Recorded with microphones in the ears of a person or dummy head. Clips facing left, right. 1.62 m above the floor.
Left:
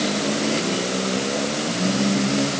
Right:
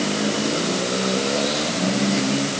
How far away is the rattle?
No rattle in this recording.